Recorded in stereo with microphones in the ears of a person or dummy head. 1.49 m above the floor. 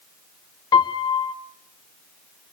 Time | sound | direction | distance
0.7 | a piano | 20° left (ahead or behind) | 1.6 m